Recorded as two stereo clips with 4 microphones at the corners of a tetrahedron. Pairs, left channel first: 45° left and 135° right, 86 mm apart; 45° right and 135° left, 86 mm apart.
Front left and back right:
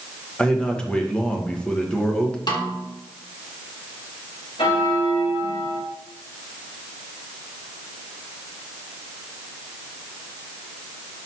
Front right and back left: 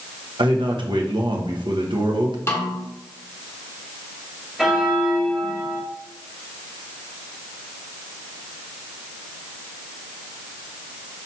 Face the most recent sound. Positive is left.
turn(degrees=50)